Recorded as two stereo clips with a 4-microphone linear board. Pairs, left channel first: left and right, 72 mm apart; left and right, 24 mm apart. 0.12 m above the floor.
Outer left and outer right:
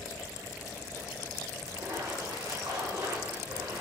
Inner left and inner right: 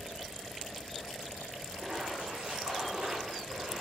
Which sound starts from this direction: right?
A splash, at 1.7 s.